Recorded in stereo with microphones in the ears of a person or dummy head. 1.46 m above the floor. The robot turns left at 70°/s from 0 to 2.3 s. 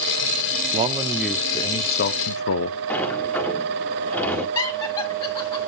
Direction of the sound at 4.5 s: 15° left (ahead or behind).